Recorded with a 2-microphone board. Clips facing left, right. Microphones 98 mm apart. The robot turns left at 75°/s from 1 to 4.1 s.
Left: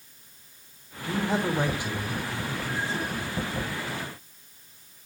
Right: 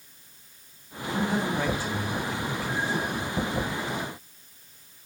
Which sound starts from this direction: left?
A man speaking, at 1.1 s.